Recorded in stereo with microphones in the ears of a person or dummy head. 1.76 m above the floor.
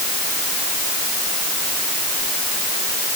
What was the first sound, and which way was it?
Only background noise.